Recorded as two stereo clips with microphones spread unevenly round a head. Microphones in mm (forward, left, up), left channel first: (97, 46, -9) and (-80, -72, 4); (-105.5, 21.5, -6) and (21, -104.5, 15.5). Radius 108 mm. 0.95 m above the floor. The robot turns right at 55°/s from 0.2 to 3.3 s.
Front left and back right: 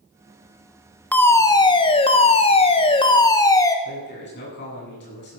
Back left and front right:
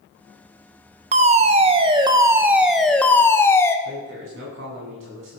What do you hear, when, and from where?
1.1 s a fire alarm: 35° right, 1.3 m; by 3.8 s 85° left, 1.3 m
3.9 s a man speaking: 5° right, 10 m